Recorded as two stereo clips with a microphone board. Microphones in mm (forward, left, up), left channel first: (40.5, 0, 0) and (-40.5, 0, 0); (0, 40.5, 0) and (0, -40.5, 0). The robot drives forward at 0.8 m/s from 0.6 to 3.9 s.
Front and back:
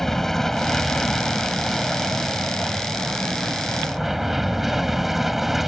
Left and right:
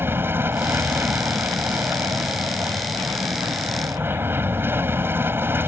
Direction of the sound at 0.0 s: 80° right.